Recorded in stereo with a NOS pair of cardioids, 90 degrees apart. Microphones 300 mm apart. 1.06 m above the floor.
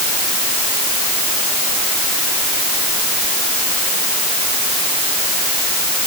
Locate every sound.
Only background noise.